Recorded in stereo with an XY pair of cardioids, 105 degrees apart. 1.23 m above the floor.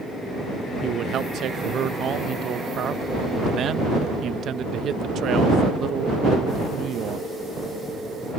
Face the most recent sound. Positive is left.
turn(degrees=-60)